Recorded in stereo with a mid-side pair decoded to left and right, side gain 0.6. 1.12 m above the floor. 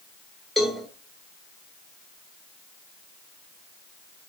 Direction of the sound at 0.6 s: 5° right.